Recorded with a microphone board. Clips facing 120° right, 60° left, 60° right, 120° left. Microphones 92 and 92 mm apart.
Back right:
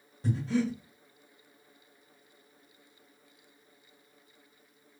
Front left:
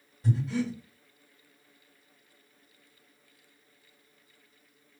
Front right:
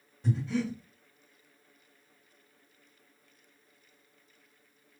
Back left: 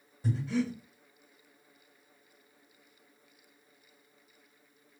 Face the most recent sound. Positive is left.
turn(degrees=-160)